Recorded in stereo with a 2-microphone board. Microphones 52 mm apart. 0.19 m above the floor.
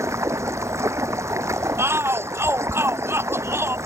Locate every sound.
0.0 s running water: 70° right (ahead or behind)
1.8 s a shout: 55° right (ahead or behind)